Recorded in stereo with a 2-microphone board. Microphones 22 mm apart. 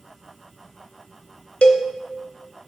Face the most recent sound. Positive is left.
turn(degrees=70)  # may be behind; listen again after turning